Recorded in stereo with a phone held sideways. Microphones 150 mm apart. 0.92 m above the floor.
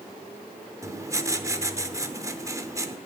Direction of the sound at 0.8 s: 20° right (ahead or behind).